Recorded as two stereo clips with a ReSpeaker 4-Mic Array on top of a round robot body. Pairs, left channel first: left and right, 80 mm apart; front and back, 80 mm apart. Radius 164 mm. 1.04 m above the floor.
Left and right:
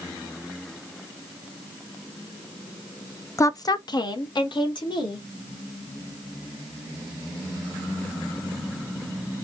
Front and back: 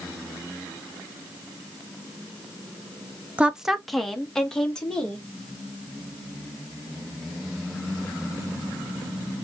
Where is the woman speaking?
115° left, 0.7 m; by 5.2 s 80° left, 2.5 m.